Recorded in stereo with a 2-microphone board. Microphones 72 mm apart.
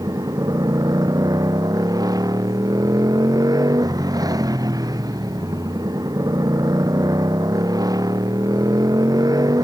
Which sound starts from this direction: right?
A motorcycle, at 0.0 s.